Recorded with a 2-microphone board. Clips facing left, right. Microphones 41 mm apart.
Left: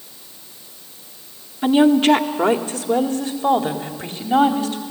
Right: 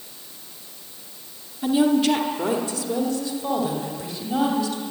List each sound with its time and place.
1.6 s a woman speaking: 45° left (ahead or behind), 1.4 m